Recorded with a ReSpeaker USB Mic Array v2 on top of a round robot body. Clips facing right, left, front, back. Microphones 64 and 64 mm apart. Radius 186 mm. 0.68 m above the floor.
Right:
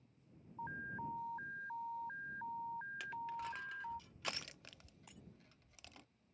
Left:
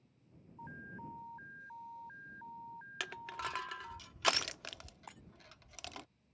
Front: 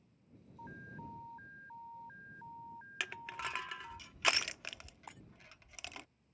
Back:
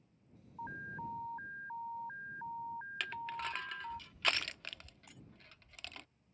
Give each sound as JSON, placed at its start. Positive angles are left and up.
{"t": 0.6, "sound": "an alarm", "azimuth_deg": -140}
{"t": 3.0, "sound": "crushing", "azimuth_deg": 80}
{"t": 5.1, "sound": "breaking glass", "azimuth_deg": 45}